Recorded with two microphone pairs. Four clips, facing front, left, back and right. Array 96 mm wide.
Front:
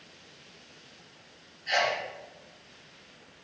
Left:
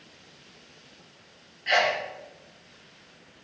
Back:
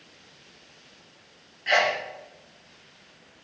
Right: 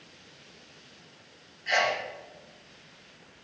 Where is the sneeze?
170° left, 0.7 m.